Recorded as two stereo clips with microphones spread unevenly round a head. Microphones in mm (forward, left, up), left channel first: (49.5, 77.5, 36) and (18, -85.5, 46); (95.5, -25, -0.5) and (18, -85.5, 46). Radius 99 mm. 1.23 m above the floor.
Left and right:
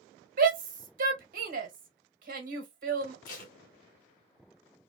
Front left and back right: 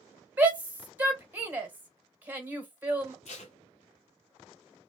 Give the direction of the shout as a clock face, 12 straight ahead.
2 o'clock.